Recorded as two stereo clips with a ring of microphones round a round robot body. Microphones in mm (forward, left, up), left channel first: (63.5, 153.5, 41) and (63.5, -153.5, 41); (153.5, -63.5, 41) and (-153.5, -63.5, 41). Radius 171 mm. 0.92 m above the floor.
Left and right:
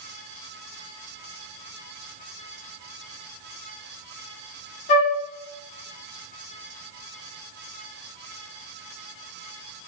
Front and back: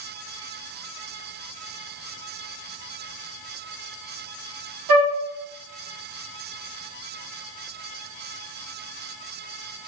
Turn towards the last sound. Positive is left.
turn(degrees=145)